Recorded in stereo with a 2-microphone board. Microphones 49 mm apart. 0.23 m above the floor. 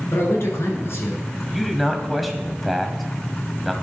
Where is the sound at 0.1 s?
65° left (ahead or behind), 3 m.